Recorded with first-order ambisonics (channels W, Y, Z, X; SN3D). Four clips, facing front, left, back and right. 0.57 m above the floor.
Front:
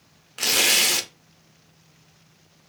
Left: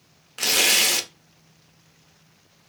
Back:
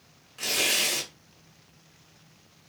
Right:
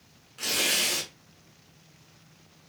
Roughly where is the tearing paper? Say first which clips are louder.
Left 7 dB, front 6 dB; ahead left.